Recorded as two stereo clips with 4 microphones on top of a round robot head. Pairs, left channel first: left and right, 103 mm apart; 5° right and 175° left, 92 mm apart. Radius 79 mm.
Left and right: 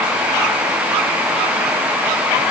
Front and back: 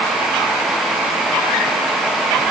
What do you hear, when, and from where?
Only background noise.